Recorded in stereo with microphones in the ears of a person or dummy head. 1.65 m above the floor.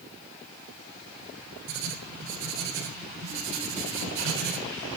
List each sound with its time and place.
1.7 s writing: 70° right (ahead or behind), 3.5 m